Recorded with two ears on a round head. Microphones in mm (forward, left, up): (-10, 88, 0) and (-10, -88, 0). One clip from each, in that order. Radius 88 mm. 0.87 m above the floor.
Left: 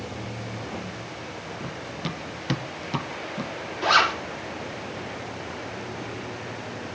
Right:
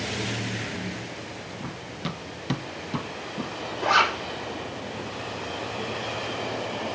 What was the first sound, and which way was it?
Running footsteps, 5° right (ahead or behind).